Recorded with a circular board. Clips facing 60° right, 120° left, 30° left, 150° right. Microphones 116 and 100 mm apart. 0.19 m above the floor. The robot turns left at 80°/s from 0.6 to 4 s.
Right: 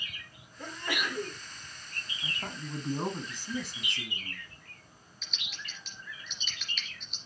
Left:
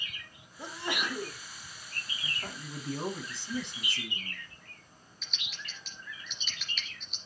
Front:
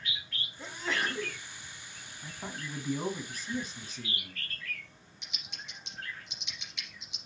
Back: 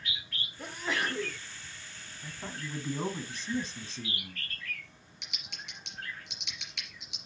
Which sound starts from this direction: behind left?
A sneeze, at 0.6 s.